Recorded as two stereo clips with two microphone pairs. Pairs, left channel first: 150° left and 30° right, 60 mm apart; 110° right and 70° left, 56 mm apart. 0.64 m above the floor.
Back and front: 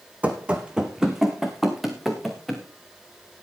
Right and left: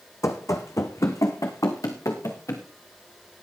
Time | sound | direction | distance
0.2 | running footsteps | 95° right | 1.7 m